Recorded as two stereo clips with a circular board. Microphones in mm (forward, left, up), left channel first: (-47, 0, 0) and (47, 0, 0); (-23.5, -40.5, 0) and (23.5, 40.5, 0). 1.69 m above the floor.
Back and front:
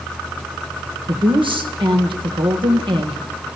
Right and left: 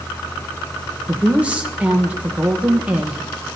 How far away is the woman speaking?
About 1.3 m.